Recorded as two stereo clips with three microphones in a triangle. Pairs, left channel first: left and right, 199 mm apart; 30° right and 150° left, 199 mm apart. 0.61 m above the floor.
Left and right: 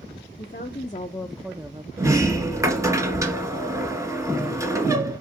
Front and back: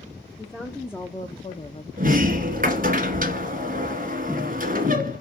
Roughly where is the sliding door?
Behind.